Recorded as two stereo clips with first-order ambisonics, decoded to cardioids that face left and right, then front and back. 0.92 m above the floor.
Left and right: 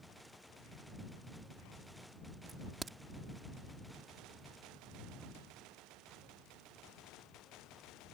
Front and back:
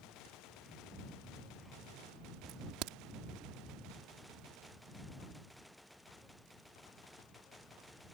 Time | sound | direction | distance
2.5 | a crack | 160° right | ?